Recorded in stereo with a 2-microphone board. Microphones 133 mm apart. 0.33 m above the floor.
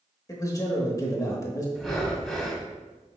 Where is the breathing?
Centre (ahead or behind), 0.9 m.